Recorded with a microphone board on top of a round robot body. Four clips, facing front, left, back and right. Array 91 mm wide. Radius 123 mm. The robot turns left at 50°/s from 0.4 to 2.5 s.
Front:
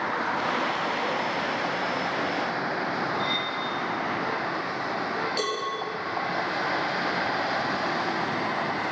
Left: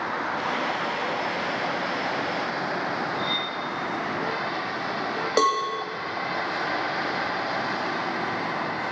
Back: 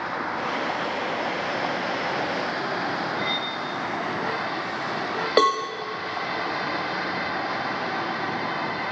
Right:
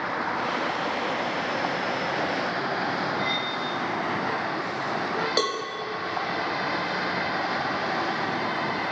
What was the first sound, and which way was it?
Cutlery clinking, 160° right.